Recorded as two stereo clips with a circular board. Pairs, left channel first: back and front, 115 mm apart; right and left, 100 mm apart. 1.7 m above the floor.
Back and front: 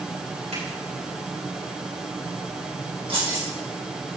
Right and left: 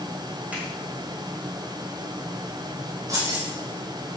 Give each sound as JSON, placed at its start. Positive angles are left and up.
{"t": 0.5, "sound": "a finger snap", "azimuth_deg": 15, "distance_m": 7.5}
{"t": 3.1, "sound": "keys jangling", "azimuth_deg": 35, "distance_m": 5.5}